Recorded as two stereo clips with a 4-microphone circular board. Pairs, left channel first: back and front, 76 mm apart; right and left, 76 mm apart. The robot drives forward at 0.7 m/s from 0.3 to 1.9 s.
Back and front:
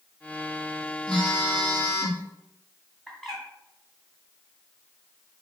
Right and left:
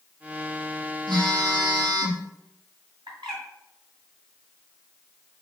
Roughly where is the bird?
Left.